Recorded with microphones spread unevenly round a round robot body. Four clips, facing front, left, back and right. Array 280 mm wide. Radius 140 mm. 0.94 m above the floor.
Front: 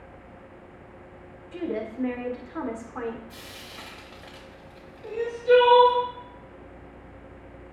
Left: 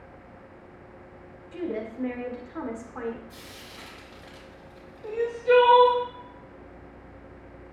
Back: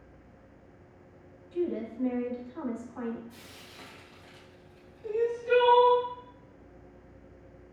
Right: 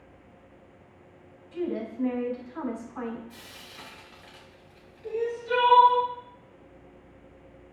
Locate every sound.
1.5 s a woman speaking: 25° left, 2 m
3.3 s frying: 15° left, 3.5 m
5.0 s crying: 70° left, 3.5 m